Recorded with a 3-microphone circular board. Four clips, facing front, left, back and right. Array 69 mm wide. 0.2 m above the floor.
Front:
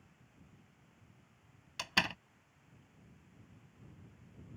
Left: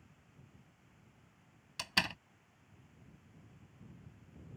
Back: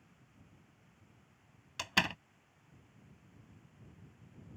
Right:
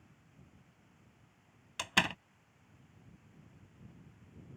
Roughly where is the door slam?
Right.